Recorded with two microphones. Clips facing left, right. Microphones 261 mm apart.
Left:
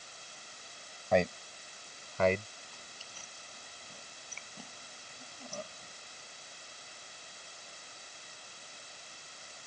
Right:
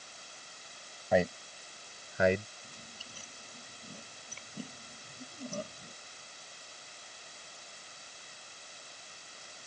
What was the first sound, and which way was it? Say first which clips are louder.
A man speaking: even; 5° right (ahead or behind).